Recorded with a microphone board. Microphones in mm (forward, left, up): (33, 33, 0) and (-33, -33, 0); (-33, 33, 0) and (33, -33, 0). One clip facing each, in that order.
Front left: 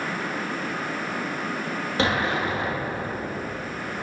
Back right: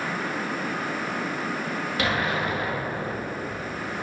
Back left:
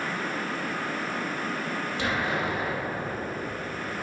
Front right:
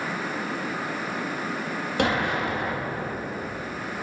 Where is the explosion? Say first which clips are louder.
Front left 3 dB, front right 5 dB; 15° right, 2 m.